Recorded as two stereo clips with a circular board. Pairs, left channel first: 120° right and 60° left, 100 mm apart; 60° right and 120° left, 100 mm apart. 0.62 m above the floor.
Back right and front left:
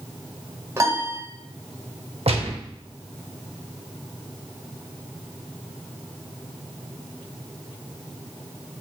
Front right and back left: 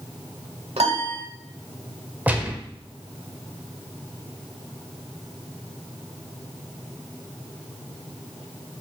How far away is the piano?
About 0.9 m.